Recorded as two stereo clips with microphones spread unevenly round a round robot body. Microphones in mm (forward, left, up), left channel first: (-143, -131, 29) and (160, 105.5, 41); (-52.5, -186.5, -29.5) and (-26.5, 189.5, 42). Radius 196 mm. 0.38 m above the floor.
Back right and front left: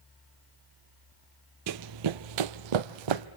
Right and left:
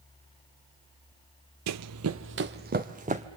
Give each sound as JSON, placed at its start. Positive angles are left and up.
{"t": 1.7, "sound": "running footsteps", "azimuth_deg": 75, "distance_m": 0.5}